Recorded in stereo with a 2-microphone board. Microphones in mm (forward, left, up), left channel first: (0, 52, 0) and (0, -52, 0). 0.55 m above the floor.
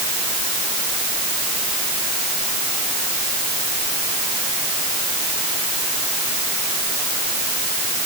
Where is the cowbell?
No cowbell in this recording.